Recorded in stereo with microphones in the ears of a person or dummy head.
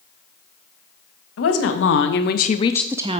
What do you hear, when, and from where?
1.4 s a woman speaking: 75° left (ahead or behind), 1.5 m; by 3.2 s 35° right (ahead or behind), 0.6 m